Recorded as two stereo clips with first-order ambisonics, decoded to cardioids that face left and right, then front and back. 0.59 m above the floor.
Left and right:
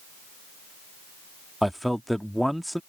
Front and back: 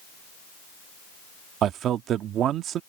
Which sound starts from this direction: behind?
A man speaking, at 1.6 s.